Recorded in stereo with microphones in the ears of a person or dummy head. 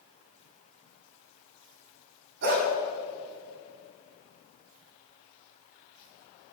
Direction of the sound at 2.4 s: 55° right (ahead or behind).